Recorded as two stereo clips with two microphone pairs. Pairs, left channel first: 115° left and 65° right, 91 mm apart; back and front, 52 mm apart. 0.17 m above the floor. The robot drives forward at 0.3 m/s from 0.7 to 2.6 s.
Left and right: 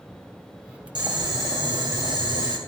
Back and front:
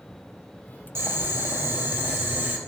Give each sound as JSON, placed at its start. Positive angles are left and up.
{"t": 0.9, "sound": "boiling", "azimuth_deg": -25, "distance_m": 3.0}